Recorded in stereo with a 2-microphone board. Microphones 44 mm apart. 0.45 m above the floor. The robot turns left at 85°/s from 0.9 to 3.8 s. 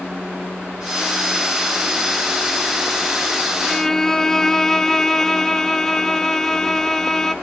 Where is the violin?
Centre (ahead or behind), 0.7 m; by 7.3 s 10° left (ahead or behind), 0.7 m.